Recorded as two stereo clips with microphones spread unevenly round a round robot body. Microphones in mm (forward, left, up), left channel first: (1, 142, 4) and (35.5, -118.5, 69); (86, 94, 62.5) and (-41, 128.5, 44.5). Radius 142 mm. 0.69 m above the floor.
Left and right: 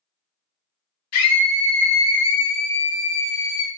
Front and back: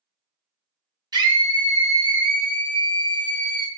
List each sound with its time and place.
1.1 s a scream: 110° left, 3 m